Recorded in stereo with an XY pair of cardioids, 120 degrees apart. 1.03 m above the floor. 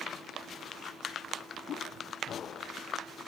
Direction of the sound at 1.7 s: 60° left.